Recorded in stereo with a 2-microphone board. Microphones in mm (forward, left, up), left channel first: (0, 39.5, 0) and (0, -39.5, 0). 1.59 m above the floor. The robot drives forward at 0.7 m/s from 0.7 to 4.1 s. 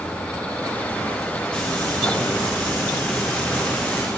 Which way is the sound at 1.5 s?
15° left (ahead or behind).